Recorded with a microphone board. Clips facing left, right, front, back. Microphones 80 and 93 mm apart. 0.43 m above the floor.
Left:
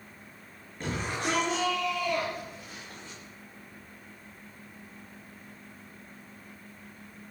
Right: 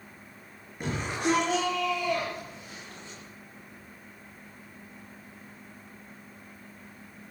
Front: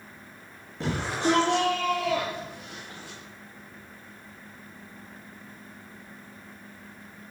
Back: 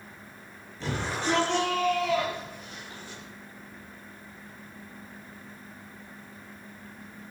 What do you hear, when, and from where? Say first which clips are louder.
0.8 s a shout: right 2 dB, front 4 dB; 15° right, 7 m; by 3.2 s 5° right, 8.5 m